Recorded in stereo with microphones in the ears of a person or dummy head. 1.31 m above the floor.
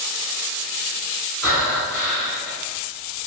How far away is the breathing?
About 1.1 m.